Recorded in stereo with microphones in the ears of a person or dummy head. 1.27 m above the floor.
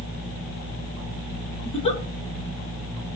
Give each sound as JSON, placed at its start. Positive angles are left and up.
{"t": 1.6, "sound": "a giggle", "side_deg": 30, "distance_m": 2.5}